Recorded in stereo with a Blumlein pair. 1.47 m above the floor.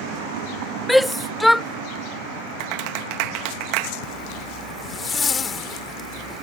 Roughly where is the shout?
Ahead.